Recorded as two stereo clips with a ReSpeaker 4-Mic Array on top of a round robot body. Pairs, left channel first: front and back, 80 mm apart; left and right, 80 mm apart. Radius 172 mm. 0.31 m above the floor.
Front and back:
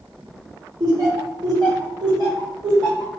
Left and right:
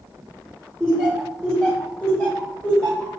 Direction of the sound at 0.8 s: 170° left.